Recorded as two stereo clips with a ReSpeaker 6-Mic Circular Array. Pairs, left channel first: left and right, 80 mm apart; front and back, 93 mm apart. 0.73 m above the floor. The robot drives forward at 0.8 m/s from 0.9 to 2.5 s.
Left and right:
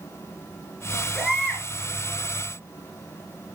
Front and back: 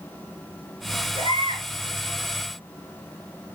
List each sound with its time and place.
1.1 s a baby crying: 175° left, 3.5 m